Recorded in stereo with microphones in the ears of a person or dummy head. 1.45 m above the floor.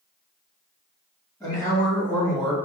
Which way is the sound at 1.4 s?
15° left (ahead or behind).